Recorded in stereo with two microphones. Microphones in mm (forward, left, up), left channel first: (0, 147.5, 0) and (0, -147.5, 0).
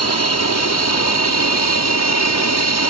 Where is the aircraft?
60° left (ahead or behind).